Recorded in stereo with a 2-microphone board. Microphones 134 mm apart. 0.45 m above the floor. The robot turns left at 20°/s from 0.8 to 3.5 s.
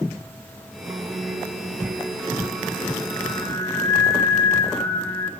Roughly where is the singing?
Behind right.